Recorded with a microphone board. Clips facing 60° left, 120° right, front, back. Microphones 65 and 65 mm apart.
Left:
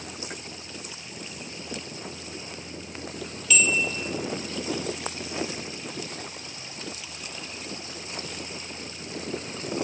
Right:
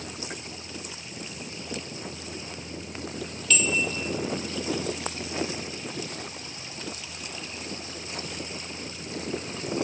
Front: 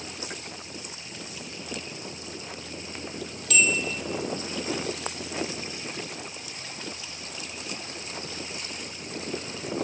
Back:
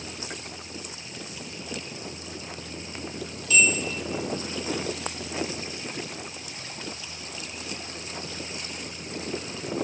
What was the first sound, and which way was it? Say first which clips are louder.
A bell: left 2 dB, back 2 dB; 25° right.